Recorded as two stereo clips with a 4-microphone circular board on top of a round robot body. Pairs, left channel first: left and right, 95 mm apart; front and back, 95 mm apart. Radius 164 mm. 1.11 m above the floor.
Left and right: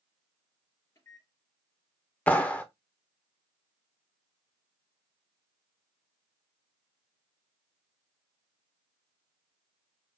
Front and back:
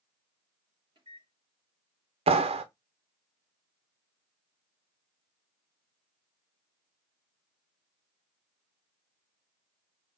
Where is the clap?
165° left, 0.5 m.